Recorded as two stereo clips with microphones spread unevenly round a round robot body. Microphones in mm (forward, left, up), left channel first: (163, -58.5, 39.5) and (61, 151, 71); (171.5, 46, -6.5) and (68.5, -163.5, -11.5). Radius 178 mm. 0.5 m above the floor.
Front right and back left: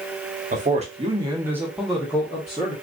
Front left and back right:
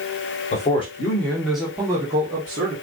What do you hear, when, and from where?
0.5 s a man speaking: 90° left, 1.5 m; by 2.7 s 100° right, 1.5 m